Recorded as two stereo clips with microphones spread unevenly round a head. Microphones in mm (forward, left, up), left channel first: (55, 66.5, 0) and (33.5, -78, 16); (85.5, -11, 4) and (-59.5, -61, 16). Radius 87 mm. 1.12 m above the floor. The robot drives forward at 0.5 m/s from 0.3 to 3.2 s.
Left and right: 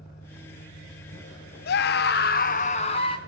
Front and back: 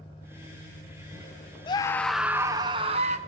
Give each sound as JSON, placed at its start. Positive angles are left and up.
{"t": 0.0, "sound": "an engine running", "azimuth_deg": 75, "distance_m": 3.5}
{"t": 1.7, "sound": "a scream", "azimuth_deg": 80, "distance_m": 0.5}